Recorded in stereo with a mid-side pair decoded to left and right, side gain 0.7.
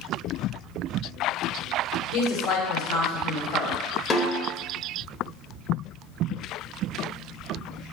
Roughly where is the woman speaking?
Left.